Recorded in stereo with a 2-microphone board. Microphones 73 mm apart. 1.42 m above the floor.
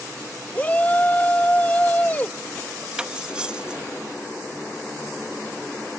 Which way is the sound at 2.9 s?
10° right (ahead or behind).